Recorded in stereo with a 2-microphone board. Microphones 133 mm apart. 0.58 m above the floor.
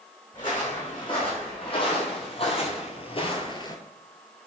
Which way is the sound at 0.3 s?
35° left (ahead or behind).